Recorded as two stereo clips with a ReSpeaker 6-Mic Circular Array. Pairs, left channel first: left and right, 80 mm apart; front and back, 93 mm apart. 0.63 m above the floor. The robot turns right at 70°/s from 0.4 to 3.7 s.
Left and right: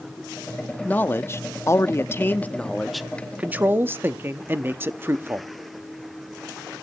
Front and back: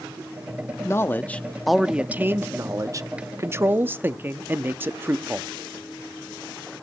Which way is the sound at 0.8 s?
30° left.